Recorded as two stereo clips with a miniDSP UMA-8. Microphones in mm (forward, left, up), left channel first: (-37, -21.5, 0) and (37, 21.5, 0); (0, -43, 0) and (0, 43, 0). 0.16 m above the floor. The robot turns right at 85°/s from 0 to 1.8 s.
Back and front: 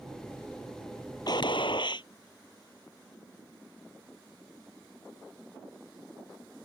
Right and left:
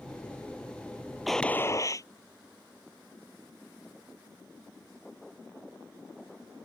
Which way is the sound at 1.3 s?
Straight behind.